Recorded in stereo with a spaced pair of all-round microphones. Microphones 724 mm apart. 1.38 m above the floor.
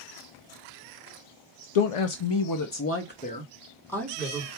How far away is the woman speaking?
About 0.6 m.